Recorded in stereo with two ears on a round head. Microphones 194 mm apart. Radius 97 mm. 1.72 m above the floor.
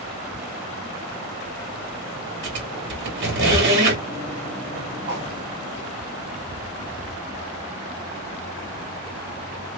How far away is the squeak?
About 2 m.